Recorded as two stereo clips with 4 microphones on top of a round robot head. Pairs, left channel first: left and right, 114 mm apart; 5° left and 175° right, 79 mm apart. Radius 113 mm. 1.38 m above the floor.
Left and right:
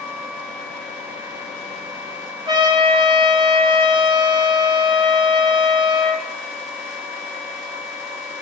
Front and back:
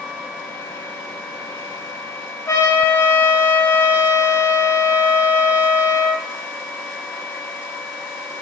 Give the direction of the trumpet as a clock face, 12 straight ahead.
2 o'clock.